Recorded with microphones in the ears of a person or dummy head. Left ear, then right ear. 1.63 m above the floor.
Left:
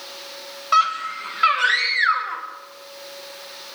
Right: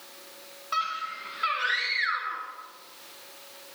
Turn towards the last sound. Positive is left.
turn(degrees=30)  # may be behind; listen again after turning